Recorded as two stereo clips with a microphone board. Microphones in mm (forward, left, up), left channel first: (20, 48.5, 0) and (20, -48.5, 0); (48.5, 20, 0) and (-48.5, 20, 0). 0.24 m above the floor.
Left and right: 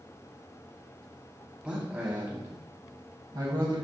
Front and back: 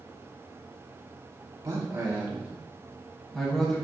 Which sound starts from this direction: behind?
A man speaking, at 1.6 s.